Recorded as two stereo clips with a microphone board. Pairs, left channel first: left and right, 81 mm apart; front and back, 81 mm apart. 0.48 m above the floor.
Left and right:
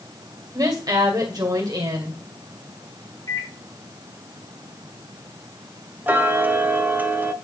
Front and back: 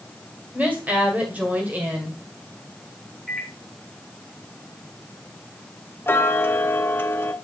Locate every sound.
0.5 s a woman speaking: 110° right, 2.5 m
3.3 s a microwave: 90° left, 1.5 m
6.1 s ticking: 40° right, 0.6 m